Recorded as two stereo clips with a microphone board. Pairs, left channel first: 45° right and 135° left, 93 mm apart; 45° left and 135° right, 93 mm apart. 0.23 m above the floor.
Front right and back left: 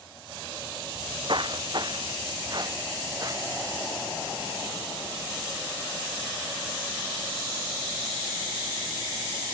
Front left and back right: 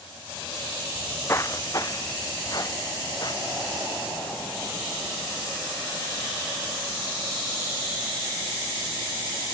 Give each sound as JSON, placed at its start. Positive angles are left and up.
{"t": 0.9, "sound": "footsteps", "azimuth_deg": 115, "distance_m": 0.8}